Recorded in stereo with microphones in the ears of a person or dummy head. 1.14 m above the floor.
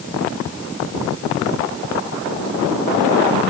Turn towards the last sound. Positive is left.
No sound to turn to.